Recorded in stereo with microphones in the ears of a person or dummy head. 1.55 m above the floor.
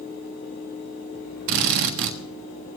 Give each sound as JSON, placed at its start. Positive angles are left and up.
{"t": 1.5, "sound": "a drill", "side_deg": -55, "distance_m": 1.3}